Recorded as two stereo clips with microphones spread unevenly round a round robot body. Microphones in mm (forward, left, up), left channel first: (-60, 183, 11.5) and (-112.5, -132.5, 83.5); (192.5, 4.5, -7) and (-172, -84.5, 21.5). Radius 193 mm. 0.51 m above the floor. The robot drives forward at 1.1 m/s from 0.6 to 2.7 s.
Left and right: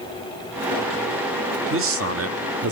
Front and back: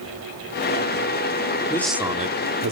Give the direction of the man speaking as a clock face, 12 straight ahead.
2 o'clock.